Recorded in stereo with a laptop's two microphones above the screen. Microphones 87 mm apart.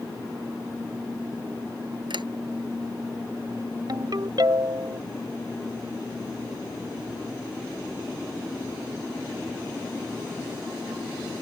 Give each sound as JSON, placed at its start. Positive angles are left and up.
{"t": 2.1, "sound": "a sliding door", "side_deg": -75}
{"t": 3.9, "sound": "a ringtone", "side_deg": -55}